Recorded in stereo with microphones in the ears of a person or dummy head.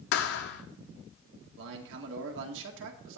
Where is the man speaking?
65° right (ahead or behind), 2.0 m.